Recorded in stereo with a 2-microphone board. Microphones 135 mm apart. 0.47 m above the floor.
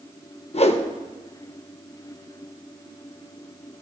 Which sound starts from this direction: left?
A whoosh, at 0.5 s.